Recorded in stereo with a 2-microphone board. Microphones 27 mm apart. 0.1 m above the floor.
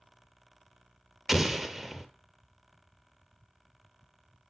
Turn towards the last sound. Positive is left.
turn(degrees=0)  # may be behind; listen again after turning